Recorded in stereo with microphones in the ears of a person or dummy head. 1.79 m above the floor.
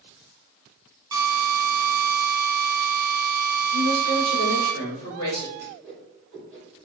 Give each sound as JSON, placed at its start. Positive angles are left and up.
{"t": 1.1, "sound": "a drill", "side_deg": -20, "distance_m": 0.8}
{"t": 3.7, "sound": "a woman speaking", "side_deg": 50, "distance_m": 1.8}
{"t": 5.6, "sound": "a whoosh", "side_deg": -5, "distance_m": 1.4}